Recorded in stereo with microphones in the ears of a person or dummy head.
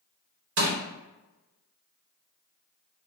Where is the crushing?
75° right (ahead or behind), 1.6 m.